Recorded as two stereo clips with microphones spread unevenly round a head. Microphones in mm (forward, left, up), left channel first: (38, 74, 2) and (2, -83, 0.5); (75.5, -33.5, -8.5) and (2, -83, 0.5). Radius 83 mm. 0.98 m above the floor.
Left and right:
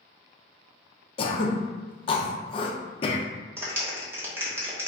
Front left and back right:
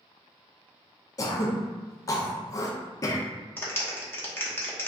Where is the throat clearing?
35° left, 0.5 m.